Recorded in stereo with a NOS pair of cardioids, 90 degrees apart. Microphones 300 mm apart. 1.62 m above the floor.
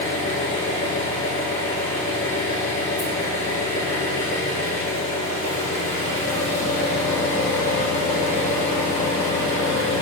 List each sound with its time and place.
0.0 s an engine running: 50° left, 2 m